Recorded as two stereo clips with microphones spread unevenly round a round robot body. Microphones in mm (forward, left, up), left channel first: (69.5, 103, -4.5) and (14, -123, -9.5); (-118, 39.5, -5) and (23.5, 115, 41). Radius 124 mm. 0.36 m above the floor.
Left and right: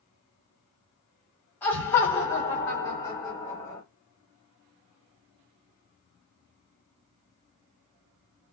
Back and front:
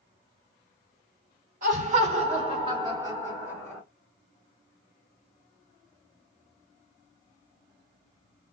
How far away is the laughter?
About 1.3 m.